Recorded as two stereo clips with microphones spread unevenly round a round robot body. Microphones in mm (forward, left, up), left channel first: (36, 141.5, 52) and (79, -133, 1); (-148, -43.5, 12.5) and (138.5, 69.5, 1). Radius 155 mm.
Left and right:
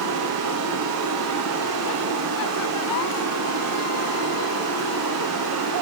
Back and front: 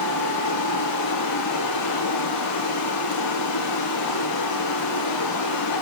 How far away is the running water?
About 8.5 m.